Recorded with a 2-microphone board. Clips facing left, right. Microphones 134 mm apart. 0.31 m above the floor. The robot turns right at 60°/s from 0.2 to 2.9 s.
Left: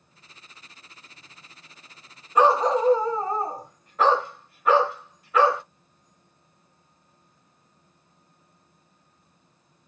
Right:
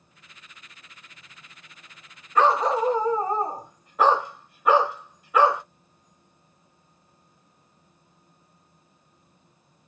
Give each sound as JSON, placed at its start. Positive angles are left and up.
{"t": 2.4, "sound": "a dog barking", "azimuth_deg": 160, "distance_m": 0.9}